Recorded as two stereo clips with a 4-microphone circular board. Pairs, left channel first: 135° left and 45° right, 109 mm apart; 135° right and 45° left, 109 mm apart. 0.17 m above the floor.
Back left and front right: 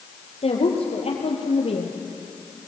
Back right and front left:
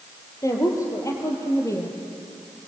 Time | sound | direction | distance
0.4 | a woman speaking | 160° left | 4.5 m